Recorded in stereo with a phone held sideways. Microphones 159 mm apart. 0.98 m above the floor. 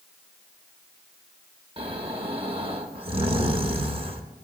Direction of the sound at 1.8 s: 40° right (ahead or behind).